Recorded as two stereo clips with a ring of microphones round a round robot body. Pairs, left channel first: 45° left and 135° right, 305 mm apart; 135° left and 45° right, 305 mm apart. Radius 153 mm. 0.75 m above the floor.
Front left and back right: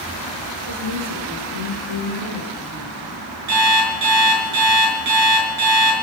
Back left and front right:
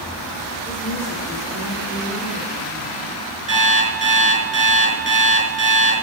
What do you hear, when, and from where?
0.7 s a woman speaking: 140° right, 9 m; by 3.2 s 130° right, 8.5 m
3.5 s an alarm clock: 115° right, 5 m